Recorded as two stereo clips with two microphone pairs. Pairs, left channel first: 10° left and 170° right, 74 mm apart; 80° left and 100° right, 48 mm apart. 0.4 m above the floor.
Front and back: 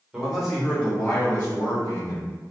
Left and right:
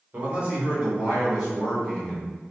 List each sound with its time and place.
0.1 s a man speaking: 100° right, 1.2 m; by 2.3 s 5° left, 1.4 m